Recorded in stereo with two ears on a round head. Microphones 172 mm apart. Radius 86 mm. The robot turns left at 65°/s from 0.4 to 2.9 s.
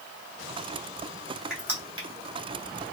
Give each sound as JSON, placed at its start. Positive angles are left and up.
{"t": 1.5, "sound": "crushing", "side_deg": -5, "distance_m": 1.2}